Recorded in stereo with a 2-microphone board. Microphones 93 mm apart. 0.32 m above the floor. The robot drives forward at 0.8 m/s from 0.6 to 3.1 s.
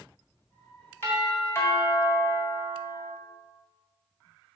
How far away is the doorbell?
About 2.5 m.